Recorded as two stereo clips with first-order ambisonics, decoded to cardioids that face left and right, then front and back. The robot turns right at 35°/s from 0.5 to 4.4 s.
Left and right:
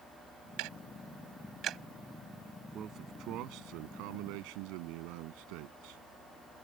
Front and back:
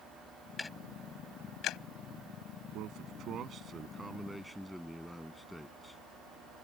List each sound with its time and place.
0.6 s ticking: 80° right; by 1.8 s 40° right
2.7 s a man speaking: 150° right; by 6.0 s 90° right